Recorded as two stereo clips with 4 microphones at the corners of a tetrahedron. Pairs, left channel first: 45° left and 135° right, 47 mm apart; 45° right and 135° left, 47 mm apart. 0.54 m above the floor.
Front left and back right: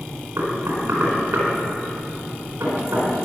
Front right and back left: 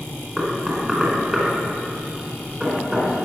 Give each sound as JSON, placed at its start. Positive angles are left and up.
{"t": 0.4, "sound": "knocking", "azimuth_deg": -145, "distance_m": 4.5}